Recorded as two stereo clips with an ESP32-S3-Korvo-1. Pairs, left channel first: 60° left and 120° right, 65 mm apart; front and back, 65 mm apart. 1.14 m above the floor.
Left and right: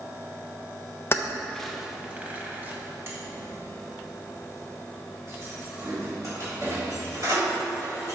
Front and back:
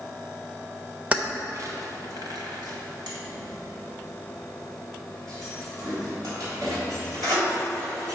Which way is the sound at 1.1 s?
110° left.